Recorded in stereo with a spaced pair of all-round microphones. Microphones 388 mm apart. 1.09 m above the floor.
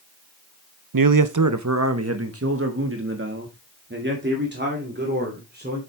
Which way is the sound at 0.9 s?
60° right (ahead or behind).